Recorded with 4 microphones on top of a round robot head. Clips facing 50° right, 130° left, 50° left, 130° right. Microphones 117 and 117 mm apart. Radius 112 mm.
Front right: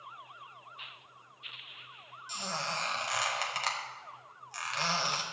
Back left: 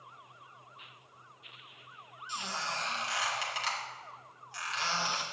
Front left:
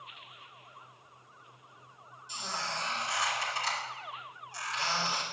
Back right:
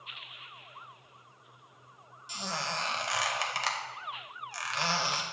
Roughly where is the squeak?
Right.